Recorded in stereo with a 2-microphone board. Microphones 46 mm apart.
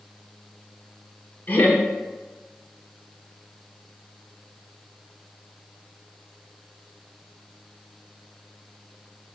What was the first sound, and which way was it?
Laughter, 35° left (ahead or behind).